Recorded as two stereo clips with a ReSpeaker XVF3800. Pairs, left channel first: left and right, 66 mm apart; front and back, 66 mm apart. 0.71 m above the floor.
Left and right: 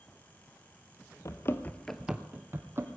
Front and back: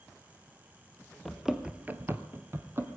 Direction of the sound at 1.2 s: 85° left.